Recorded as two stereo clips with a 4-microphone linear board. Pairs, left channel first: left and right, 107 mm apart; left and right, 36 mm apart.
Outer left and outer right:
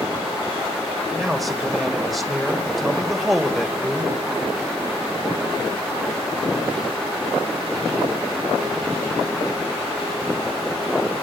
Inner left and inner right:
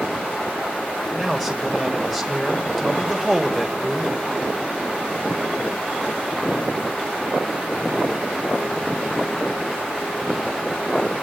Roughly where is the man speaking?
Centre.